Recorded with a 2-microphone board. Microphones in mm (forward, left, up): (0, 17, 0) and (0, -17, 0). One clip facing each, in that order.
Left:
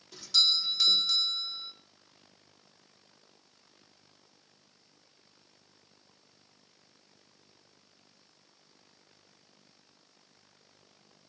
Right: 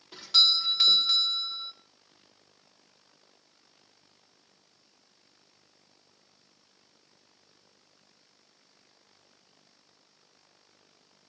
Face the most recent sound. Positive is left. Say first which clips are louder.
# right 4 dB
turn(degrees=-35)  # may be behind; listen again after turning